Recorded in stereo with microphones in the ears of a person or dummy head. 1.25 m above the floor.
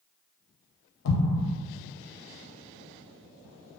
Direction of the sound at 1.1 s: 75° left (ahead or behind).